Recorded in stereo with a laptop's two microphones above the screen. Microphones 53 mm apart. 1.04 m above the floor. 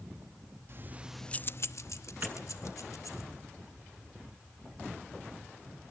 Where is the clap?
35° right (ahead or behind), 9 m.